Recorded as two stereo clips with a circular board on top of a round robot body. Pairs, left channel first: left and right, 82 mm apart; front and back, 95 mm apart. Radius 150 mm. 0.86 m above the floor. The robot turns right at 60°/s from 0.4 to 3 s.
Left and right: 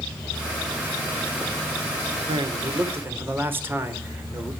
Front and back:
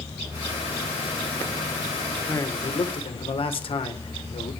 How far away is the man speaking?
About 3 m.